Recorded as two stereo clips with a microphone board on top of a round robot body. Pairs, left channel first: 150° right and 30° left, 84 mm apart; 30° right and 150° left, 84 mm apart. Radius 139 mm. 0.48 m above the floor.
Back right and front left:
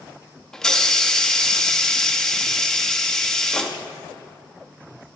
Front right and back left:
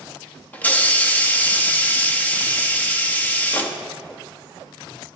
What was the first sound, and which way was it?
A hiss, 75° right.